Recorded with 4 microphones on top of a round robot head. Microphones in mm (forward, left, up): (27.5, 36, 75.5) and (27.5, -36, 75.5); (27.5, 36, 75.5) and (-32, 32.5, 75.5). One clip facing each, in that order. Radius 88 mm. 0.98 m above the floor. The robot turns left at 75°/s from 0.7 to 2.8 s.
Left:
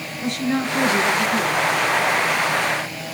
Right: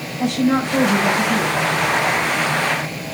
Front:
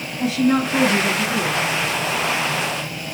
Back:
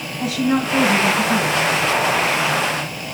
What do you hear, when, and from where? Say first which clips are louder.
0.2 s a woman speaking: right 5 dB, front 1 dB; 95° right, 6 m; by 1.6 s 165° right, 6 m